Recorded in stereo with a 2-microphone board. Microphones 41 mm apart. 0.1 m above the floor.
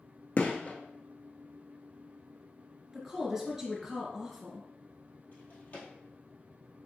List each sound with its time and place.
0.4 s a gunshot: 40° left (ahead or behind), 0.9 m
2.9 s a woman speaking: 10° right (ahead or behind), 1.4 m
5.3 s a drawer: 50° left (ahead or behind), 1.8 m